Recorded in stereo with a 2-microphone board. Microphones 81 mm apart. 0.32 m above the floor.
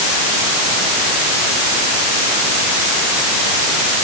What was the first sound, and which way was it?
Only background noise.